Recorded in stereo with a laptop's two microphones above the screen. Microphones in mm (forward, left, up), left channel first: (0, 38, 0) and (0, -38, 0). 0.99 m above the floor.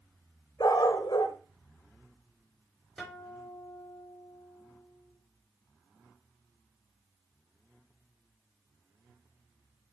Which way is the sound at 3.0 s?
Centre (ahead or behind).